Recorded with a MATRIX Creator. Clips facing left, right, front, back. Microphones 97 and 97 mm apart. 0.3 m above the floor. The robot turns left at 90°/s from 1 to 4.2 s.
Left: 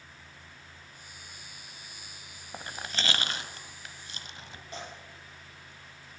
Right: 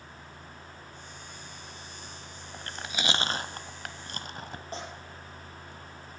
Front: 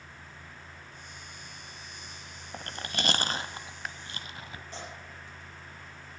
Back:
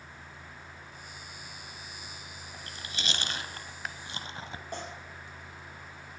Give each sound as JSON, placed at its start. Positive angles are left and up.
{"t": 2.5, "sound": "chewing", "azimuth_deg": 25, "distance_m": 0.6}
{"t": 4.7, "sound": "tearing paper", "azimuth_deg": -145, "distance_m": 3.0}